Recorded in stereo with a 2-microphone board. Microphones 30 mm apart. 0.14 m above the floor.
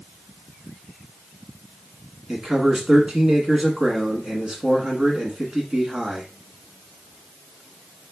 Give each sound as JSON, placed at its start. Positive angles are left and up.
{"t": 2.3, "sound": "a man speaking", "side_deg": -25, "distance_m": 1.2}